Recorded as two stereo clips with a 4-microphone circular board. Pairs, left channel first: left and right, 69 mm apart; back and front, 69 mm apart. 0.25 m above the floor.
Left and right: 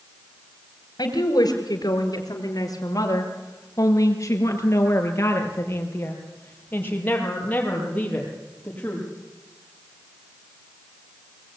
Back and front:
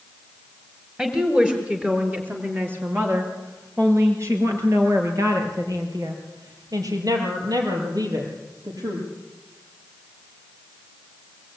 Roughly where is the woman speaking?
Left.